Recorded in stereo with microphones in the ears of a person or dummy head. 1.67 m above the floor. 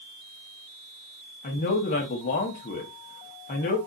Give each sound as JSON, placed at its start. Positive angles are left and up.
{"t": 1.4, "sound": "a man speaking", "side_deg": 40, "distance_m": 0.8}